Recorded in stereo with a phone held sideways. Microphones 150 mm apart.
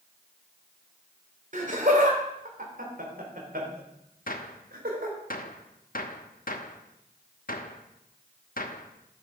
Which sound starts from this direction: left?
A gunshot, at 4.3 s.